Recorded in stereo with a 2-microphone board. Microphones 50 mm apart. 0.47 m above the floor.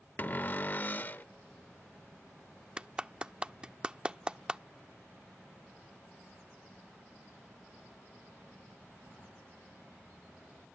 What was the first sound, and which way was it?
A cupboard door, 35° left (ahead or behind).